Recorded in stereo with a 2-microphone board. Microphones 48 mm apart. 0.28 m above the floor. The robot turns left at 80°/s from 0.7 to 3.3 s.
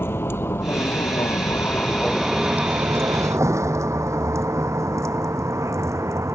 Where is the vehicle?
50° left (ahead or behind); by 6.4 s 85° right.